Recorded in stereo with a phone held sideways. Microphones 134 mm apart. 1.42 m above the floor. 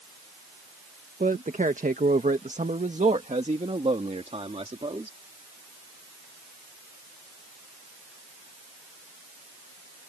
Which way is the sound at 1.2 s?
70° right (ahead or behind).